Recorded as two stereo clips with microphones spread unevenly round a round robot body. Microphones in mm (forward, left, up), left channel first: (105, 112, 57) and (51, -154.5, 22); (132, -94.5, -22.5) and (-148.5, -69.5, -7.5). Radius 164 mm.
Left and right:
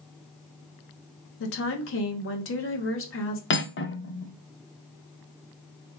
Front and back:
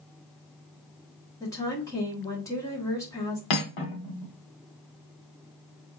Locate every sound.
1.4 s a woman speaking: 65° left, 1.0 m
3.5 s cutlery clinking: 25° left, 0.8 m